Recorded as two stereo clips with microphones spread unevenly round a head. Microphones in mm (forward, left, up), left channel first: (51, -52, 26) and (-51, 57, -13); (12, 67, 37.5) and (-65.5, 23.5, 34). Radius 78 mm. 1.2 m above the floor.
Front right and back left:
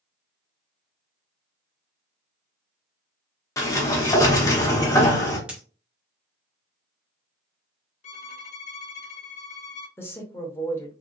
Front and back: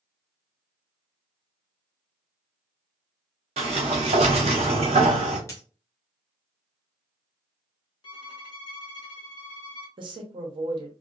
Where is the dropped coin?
30° left, 0.5 m.